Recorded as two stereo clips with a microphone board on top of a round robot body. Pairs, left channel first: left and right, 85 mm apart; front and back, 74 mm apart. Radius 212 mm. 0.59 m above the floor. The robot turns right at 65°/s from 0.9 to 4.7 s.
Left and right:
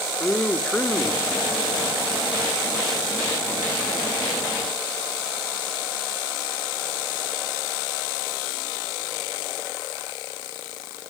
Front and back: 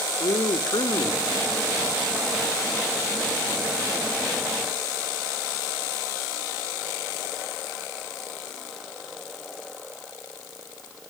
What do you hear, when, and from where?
0.2 s a man speaking: 15° left, 2.5 m; by 2.0 s 85° left, 2.5 m